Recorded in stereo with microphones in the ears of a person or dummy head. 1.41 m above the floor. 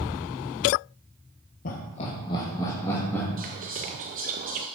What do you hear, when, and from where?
1.6 s laughter: 50° left (ahead or behind), 1.0 m; by 3.3 s 15° left (ahead or behind), 2.5 m
3.4 s whispering: 35° right (ahead or behind), 0.7 m